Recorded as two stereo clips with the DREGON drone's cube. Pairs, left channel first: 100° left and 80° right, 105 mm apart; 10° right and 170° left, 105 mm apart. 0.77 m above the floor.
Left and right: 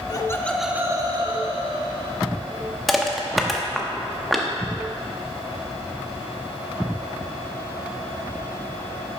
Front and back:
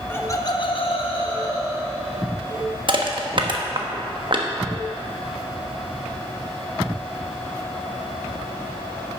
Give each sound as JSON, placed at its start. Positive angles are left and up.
{"t": 0.1, "sound": "laughter", "azimuth_deg": 55, "distance_m": 1.2}
{"t": 2.9, "sound": "crushing", "azimuth_deg": -170, "distance_m": 1.0}